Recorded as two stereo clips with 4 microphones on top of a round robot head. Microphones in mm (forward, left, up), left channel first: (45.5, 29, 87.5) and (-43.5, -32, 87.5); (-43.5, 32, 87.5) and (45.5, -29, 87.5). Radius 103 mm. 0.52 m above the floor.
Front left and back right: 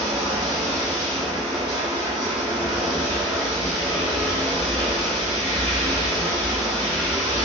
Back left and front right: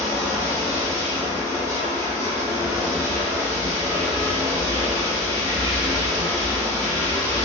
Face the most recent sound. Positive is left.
turn(degrees=-100)